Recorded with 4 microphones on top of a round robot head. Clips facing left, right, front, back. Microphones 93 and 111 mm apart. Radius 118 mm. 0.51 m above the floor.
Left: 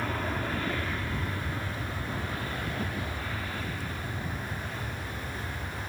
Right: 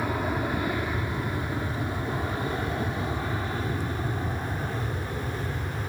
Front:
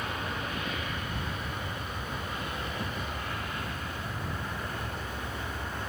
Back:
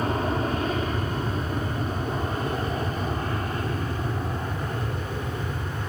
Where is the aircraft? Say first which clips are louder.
Right 4 dB, back 10 dB; 160° right; by 5.9 s 140° right.